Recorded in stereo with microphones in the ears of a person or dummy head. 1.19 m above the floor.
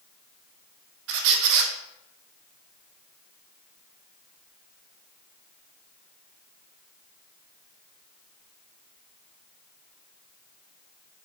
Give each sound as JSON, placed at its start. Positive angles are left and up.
{"t": 1.1, "sound": "a squeak", "side_deg": -65, "distance_m": 0.5}